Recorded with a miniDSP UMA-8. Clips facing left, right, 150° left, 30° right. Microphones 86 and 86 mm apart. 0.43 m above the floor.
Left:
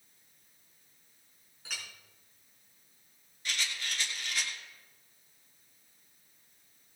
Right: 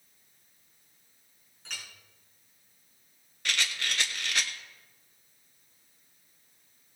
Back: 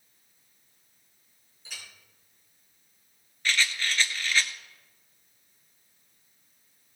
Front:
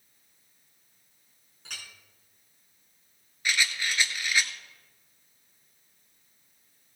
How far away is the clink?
About 4 m.